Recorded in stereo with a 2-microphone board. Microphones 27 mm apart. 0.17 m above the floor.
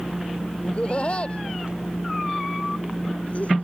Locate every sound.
0.6 s laughter: 40° left (ahead or behind); by 3.6 s 50° left (ahead or behind)